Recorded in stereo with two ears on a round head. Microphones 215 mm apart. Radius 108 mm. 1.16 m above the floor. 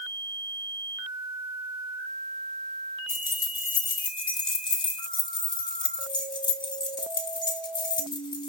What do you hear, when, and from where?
3.1 s keys jangling: 20° left (ahead or behind), 1.6 m